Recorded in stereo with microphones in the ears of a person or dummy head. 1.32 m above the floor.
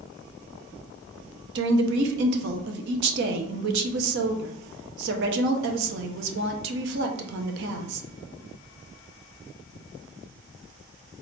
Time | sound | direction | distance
1.6 | a woman speaking | 65° right (ahead or behind) | 0.9 m